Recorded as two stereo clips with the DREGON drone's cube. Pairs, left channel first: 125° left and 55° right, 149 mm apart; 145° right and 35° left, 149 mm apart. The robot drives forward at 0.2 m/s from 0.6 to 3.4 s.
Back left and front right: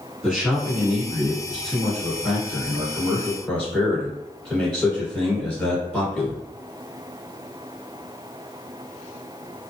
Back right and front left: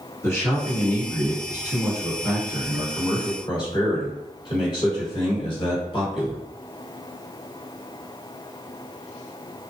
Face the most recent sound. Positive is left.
turn(degrees=-165)